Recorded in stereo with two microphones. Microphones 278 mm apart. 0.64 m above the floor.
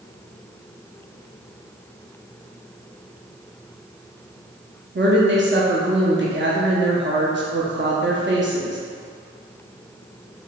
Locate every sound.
5.0 s a woman speaking: 45° right (ahead or behind), 0.7 m